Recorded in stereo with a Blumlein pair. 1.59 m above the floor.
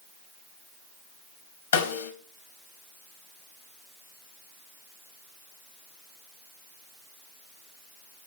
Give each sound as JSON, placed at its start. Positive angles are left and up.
{"t": 1.7, "sound": "a snare drum", "azimuth_deg": 65, "distance_m": 1.4}